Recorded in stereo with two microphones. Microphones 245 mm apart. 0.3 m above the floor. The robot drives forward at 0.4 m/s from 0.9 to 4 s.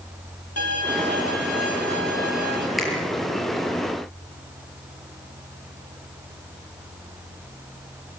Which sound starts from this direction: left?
A violin, at 0.6 s.